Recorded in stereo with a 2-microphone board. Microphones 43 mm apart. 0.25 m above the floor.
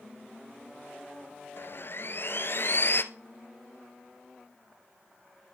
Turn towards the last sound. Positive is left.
turn(degrees=55)  # may be behind; listen again after turning